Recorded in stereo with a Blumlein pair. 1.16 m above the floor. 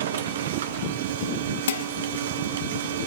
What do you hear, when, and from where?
0.0 s a machine running: 60° right, 1.3 m
1.7 s dishes clattering: 65° left, 1.1 m